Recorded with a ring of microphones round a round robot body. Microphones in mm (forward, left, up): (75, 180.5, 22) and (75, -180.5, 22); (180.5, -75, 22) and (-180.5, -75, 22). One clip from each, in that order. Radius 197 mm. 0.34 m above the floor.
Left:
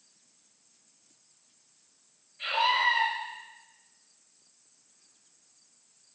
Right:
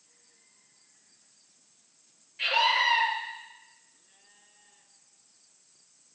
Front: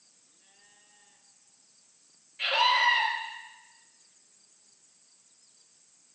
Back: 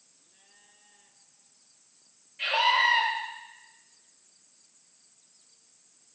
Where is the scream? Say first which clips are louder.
Right 1 dB, even; 90° right, 6.5 m.